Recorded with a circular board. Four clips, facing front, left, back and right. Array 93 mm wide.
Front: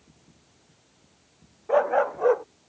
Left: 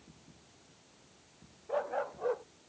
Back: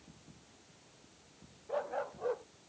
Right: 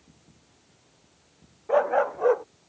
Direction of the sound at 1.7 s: 40° right.